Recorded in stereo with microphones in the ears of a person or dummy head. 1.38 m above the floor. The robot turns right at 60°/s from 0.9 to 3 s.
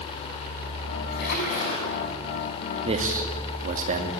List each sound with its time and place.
1.2 s a splash: 120° left, 6 m; by 1.9 s 165° left, 6 m
2.9 s a man speaking: 35° right (ahead or behind), 2 m; by 4.1 s 45° right (ahead or behind), 2 m